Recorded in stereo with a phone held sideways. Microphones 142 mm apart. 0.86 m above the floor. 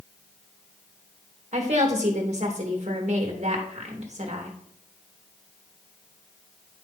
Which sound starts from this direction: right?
A woman speaking, at 1.5 s.